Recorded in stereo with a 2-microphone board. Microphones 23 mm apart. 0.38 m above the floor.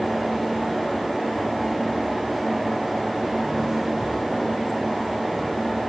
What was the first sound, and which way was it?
Only background noise.